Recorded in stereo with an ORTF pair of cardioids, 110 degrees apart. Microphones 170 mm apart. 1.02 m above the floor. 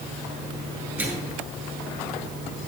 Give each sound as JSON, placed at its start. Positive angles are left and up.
{"t": 1.0, "sound": "a microwave", "azimuth_deg": -15, "distance_m": 8.0}